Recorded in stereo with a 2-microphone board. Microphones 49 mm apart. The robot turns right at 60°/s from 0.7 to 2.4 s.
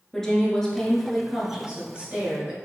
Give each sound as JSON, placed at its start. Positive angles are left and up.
{"t": 0.1, "sound": "a woman speaking", "side_deg": 10, "distance_m": 1.2}